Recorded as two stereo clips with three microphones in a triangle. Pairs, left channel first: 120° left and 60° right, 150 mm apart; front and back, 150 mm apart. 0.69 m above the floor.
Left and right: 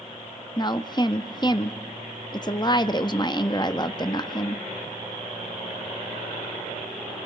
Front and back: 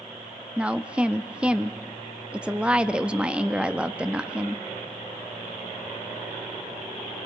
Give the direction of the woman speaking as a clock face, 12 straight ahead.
9 o'clock.